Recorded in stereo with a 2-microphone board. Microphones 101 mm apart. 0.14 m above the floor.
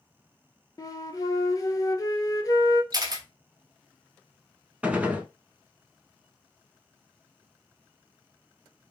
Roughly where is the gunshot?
Centre.